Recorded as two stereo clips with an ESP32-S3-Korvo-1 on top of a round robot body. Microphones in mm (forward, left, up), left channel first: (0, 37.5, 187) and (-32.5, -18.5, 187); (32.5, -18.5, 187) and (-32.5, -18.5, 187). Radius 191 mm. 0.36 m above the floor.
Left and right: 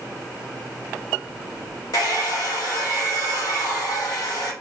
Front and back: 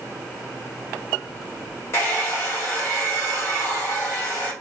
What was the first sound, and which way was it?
A hair dryer, 45° left.